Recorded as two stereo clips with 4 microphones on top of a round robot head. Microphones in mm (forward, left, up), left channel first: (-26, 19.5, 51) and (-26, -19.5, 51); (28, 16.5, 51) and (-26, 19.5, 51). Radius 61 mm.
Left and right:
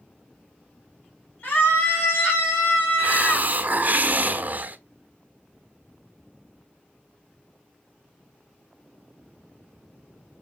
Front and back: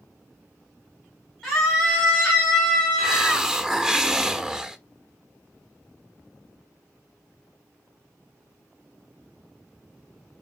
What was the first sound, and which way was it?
A scream, 85° left.